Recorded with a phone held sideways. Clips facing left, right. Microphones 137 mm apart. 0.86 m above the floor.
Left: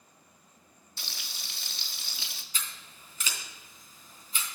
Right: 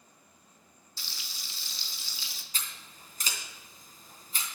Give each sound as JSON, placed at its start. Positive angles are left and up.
{"t": 1.0, "sound": "frying", "side_deg": 65, "distance_m": 1.1}
{"t": 2.5, "sound": "scissors", "side_deg": -40, "distance_m": 3.0}